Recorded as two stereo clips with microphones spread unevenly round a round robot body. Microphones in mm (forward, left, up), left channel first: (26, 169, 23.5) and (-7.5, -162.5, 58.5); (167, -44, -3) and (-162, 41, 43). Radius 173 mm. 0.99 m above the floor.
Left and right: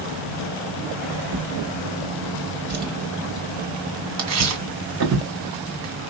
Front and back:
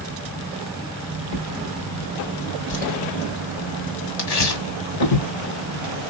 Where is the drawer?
45° right, 1.8 m.